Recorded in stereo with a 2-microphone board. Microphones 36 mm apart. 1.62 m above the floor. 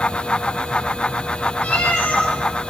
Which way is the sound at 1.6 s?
75° left (ahead or behind).